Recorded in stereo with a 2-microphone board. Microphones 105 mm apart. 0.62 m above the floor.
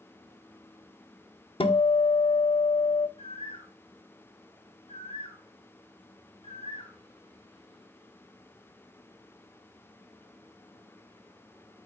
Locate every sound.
1.6 s a guitar: 65° left (ahead or behind), 0.8 m
3.2 s a bird: 80° left, 3.5 m